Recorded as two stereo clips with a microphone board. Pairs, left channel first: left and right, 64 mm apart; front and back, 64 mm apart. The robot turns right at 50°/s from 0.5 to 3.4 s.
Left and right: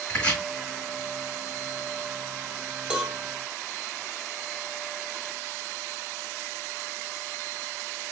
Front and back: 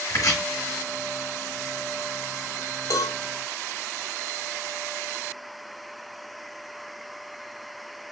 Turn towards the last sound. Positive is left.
turn(degrees=5)